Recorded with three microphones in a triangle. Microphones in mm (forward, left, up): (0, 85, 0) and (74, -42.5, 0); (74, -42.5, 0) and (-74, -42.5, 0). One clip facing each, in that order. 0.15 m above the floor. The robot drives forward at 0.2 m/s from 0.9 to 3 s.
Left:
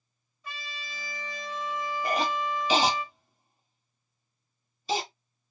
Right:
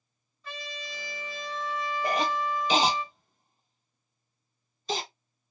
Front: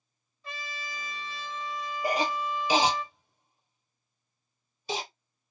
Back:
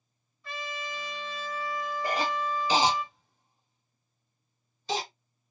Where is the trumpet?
55° left, 1.6 m; by 3.0 s 80° left, 1.5 m.